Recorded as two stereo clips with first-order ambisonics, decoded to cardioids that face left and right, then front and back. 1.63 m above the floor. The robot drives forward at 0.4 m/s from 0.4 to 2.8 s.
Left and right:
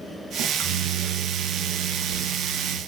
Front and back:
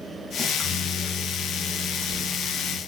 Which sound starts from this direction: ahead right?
A microwave, at 0.4 s.